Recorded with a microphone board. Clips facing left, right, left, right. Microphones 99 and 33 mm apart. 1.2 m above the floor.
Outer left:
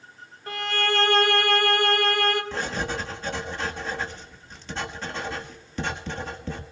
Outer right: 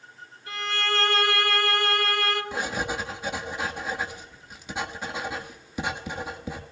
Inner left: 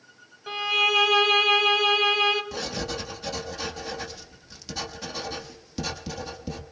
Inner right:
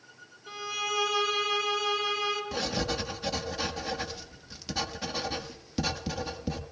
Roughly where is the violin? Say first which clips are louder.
Outer left 3 dB, inner left 10 dB; left.